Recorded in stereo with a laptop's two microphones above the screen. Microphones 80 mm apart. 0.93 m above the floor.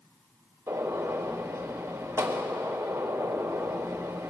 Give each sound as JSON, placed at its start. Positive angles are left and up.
{"t": 0.7, "sound": "a gunshot", "side_deg": -35, "distance_m": 3.0}